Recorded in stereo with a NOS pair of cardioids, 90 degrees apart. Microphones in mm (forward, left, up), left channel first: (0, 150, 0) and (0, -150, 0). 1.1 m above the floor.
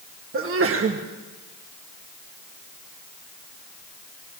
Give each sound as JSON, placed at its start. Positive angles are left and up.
{"t": 0.3, "sound": "a sneeze", "azimuth_deg": -45, "distance_m": 1.4}